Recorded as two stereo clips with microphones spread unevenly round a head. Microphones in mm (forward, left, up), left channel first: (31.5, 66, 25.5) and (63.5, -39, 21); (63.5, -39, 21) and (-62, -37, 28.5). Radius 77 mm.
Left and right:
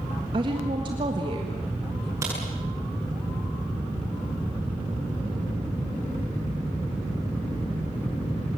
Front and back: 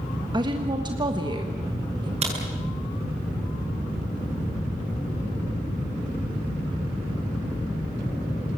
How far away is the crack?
About 7.5 m.